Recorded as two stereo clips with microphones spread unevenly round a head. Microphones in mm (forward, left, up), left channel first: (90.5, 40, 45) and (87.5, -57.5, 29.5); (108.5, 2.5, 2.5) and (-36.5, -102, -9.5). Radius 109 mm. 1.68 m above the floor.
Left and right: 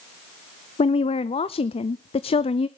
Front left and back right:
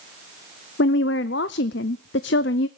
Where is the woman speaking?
70° left, 0.5 m.